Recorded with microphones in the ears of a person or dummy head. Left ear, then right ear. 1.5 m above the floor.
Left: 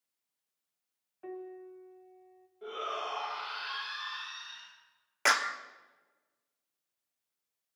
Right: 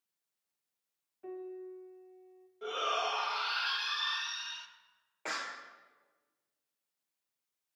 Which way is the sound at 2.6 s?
40° right (ahead or behind).